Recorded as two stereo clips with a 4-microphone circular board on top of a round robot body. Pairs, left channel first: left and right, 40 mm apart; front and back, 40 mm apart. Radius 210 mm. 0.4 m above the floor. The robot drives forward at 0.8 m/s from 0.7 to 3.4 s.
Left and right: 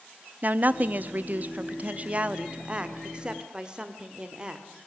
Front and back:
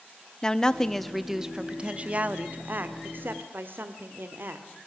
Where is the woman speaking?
70° right, 1.3 m; by 4.7 s 155° right, 2.5 m.